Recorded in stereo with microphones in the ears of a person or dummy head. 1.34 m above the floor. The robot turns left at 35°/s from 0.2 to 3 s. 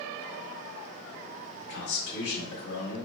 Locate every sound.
1.6 s a man speaking: 100° left, 1.6 m; by 3.1 s 50° left, 1.6 m